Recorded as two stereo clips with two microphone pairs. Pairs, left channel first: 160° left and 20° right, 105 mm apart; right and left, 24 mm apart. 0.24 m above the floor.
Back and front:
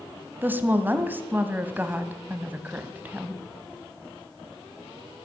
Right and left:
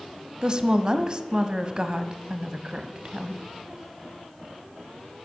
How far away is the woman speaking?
About 1.5 m.